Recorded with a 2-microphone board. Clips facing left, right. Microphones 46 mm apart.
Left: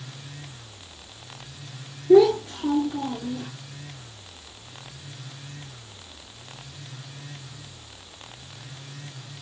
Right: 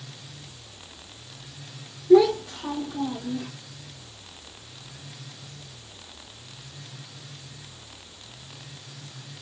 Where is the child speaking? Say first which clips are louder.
Left 1 dB; 20° left (ahead or behind), 4.5 m; by 3.5 s 25° left (ahead or behind), 3.5 m.